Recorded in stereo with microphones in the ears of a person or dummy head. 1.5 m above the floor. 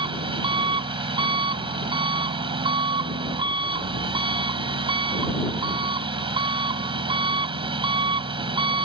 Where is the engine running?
25° right (ahead or behind).